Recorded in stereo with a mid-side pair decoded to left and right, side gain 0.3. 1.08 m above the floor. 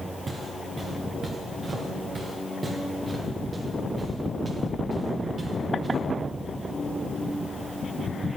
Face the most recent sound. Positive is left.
turn(degrees=-65)